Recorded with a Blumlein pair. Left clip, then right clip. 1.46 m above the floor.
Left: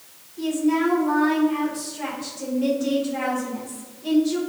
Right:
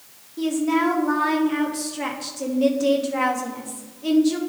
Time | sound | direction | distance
0.4 | a woman speaking | 35° right | 1.7 m